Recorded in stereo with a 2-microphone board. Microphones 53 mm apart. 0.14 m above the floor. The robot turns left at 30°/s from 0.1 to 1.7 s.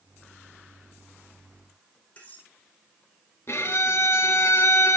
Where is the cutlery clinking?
25° left (ahead or behind), 5 m.